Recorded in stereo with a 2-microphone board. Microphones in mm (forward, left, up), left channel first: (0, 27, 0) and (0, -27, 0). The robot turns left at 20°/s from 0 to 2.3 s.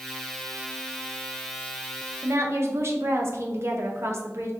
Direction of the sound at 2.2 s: 50° right (ahead or behind).